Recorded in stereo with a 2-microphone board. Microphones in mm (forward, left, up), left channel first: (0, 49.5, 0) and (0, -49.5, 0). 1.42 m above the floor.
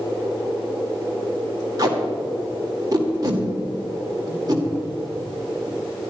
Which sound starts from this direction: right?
Tape being pulled, at 1.8 s.